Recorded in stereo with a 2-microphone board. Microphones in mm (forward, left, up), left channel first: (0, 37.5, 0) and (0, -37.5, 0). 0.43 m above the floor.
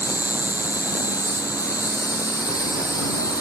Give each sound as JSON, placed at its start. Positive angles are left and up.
{"t": 0.0, "sound": "an insect", "side_deg": 55}